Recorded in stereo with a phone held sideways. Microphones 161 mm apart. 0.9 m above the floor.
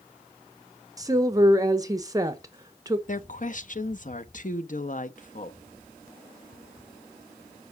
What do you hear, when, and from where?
1.0 s a woman speaking: 20° right (ahead or behind), 0.8 m
3.1 s a woman speaking: 55° left (ahead or behind), 0.7 m